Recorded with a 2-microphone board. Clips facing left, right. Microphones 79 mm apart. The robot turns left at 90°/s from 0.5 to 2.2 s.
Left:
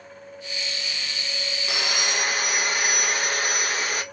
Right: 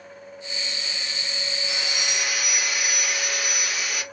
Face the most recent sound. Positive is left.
turn(degrees=50)